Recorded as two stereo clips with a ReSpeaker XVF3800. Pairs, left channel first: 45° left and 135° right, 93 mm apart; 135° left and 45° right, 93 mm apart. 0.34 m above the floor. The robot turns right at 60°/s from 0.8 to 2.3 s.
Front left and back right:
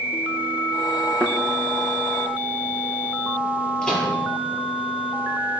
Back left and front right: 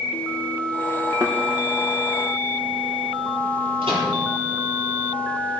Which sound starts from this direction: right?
A thud, at 1.2 s.